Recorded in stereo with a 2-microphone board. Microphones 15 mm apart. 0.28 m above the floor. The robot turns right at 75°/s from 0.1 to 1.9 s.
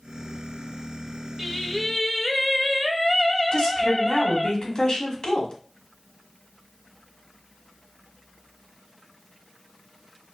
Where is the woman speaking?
55° left (ahead or behind), 1.4 m.